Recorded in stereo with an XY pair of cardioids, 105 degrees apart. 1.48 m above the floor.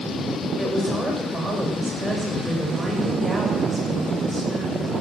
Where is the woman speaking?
20° right, 7.5 m.